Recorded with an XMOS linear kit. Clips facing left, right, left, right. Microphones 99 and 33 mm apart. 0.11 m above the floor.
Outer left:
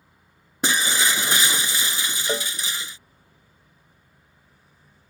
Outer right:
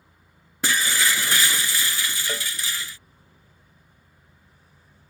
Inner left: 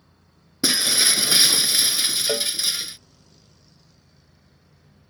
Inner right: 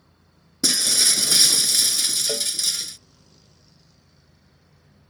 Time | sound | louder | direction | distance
0.6 | breaking glass | outer left 1 dB, inner left 1 dB | 20° left (ahead or behind) | ?
2.3 | a cowbell | outer left 5 dB, inner left 3 dB | 25° left (ahead or behind) | ?